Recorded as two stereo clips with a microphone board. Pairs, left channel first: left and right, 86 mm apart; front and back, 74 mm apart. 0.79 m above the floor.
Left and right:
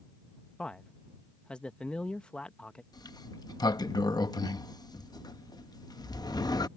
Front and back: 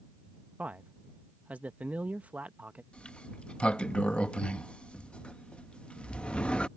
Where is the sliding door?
70° left.